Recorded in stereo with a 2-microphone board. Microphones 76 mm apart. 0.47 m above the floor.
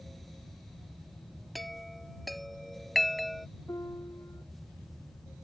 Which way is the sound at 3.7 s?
45° left (ahead or behind).